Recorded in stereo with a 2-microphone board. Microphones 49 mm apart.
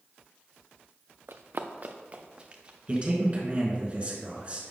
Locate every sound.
1.3 s running footsteps: 60° right (ahead or behind), 0.5 m; by 3.1 s 20° right (ahead or behind), 1.5 m
2.9 s a man speaking: 30° right (ahead or behind), 1.6 m